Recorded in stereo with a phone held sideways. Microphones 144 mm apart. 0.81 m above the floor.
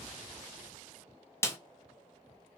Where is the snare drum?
15° left (ahead or behind), 0.5 m.